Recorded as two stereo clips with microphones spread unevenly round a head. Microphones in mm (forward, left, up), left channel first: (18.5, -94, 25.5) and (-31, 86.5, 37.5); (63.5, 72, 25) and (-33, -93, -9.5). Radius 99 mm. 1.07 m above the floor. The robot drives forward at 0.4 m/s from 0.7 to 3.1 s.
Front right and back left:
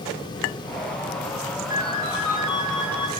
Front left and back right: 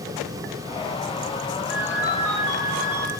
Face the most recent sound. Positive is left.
turn(degrees=80)